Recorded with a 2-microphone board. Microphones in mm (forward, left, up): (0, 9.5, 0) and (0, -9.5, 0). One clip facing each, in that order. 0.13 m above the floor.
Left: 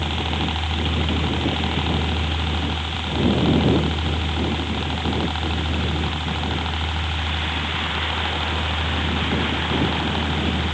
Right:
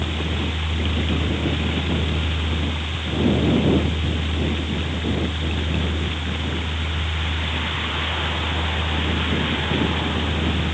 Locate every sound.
0.0 s a helicopter: 65° left (ahead or behind)